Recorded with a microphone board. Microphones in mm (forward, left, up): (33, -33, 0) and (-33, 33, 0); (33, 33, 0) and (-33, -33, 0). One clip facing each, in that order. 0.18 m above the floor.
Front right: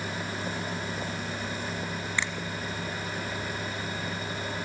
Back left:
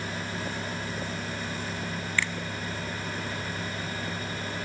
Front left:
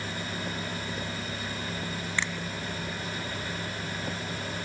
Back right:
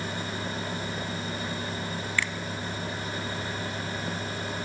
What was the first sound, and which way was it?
A finger snap, straight ahead.